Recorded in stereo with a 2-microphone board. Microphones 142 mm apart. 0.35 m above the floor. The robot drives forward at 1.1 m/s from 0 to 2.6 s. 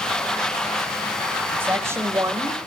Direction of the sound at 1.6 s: 15° right (ahead or behind).